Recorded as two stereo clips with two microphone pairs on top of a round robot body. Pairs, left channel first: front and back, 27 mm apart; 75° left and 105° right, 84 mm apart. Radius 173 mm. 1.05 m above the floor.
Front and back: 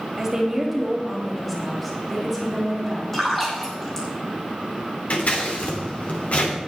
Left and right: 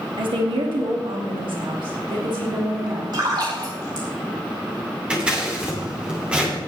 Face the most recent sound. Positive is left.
turn(degrees=-30)